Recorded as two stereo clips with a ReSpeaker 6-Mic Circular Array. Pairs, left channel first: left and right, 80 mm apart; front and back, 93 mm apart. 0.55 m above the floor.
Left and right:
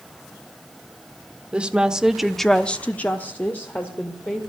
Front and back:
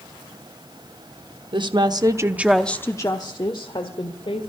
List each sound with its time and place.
1.5 s a woman speaking: 165° right, 1.1 m; by 4.5 s 20° left, 2 m